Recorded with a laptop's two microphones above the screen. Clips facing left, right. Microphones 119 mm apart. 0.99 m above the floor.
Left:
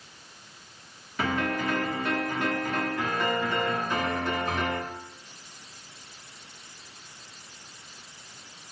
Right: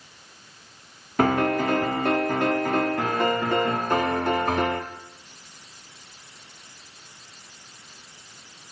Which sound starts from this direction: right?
A piano, at 1.2 s.